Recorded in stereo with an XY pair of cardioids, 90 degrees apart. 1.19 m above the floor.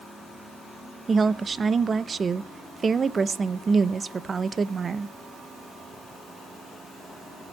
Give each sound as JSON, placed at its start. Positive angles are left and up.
{"t": 1.1, "sound": "a woman speaking", "azimuth_deg": -40, "distance_m": 0.7}